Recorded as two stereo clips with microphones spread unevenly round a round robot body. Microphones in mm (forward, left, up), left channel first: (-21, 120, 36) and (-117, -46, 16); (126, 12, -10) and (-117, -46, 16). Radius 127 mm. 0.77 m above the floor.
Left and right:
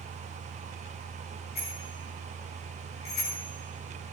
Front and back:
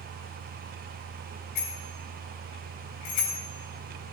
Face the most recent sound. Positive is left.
turn(degrees=5)